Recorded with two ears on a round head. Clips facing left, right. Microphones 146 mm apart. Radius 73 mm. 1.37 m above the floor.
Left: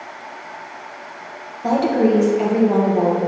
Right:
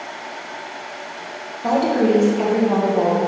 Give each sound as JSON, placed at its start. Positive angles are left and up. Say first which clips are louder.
{"t": 1.6, "sound": "a woman speaking", "louder": "left 1 dB", "side_deg": 5, "distance_m": 1.6}